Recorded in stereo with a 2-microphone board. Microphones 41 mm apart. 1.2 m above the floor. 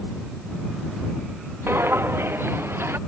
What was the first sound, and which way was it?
Footsteps, 75° right (ahead or behind).